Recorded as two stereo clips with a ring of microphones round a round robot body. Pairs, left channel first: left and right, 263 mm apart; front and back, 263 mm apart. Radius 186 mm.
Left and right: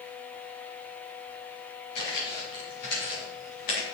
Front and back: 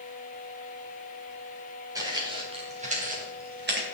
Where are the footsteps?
105° left, 4 m; by 3.9 s 130° left, 3.5 m.